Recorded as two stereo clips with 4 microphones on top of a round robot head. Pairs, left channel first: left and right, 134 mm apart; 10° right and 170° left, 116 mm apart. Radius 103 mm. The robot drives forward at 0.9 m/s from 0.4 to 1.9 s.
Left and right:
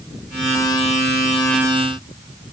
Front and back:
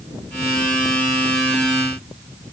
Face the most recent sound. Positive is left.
No sound to turn to.